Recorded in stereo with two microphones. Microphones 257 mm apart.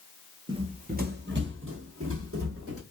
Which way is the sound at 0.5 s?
20° right (ahead or behind).